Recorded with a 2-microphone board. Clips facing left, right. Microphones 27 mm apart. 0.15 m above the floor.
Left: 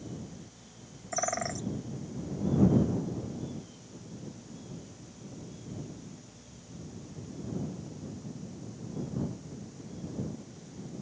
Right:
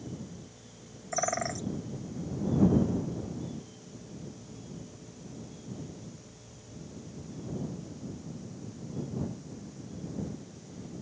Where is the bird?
5° right (ahead or behind).